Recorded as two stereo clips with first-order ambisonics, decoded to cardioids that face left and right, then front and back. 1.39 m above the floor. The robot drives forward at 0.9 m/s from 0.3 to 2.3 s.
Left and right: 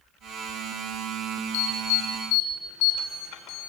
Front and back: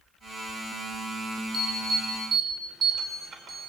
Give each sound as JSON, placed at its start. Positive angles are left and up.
{"t": 1.5, "sound": "an alarm", "azimuth_deg": 105, "distance_m": 3.5}